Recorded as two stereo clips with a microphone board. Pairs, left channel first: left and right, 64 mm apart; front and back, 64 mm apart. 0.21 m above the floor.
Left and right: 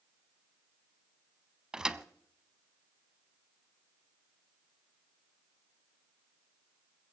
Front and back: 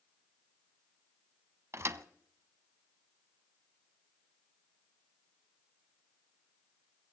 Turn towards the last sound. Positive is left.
turn(degrees=-165)